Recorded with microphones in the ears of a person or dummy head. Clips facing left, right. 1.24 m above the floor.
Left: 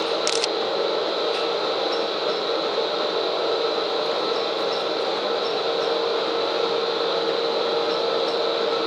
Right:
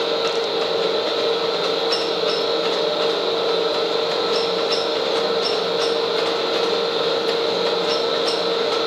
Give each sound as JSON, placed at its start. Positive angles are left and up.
{"t": 0.0, "sound": "a fan", "side_deg": -50, "distance_m": 8.0}